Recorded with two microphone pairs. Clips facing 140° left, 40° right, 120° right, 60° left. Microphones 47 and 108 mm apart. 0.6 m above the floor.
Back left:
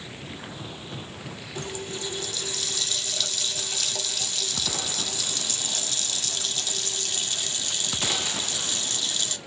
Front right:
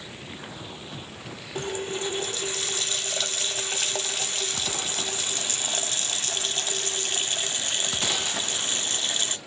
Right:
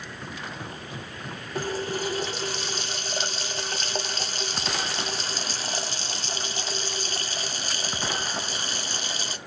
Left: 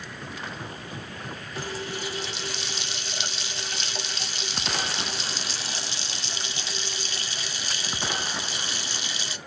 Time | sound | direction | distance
1.6 | a running tap | 85° right | 0.9 m